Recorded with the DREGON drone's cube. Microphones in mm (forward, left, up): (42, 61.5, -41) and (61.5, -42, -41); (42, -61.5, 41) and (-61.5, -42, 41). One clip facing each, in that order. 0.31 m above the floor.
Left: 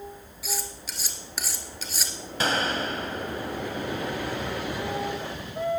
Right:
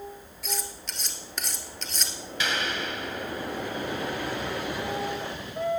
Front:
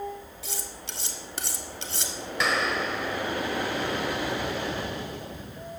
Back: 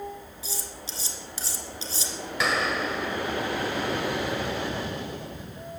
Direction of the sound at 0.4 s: 15° left.